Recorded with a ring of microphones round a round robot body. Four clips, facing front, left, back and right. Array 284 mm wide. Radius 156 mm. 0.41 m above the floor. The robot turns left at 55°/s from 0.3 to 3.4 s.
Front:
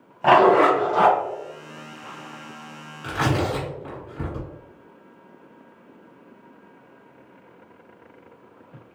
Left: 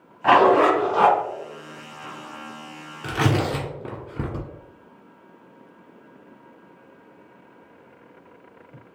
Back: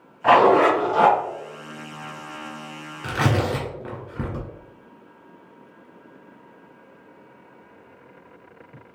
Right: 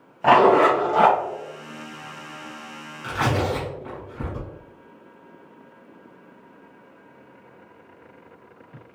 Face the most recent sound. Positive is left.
turn(degrees=115)